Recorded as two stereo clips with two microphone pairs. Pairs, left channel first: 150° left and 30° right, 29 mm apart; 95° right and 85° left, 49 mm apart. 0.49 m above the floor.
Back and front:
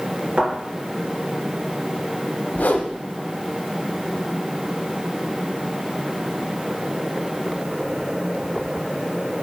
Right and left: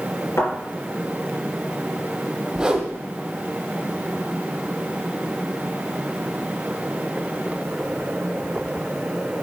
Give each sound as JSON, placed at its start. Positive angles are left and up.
{"t": 0.4, "sound": "a thud", "azimuth_deg": -75, "distance_m": 3.5}
{"t": 2.5, "sound": "a whoosh", "azimuth_deg": 155, "distance_m": 0.9}